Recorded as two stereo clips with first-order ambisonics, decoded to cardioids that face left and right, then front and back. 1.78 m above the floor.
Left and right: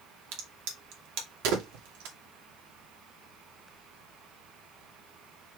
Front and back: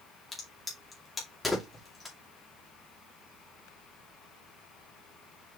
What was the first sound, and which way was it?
A crack, 80° right.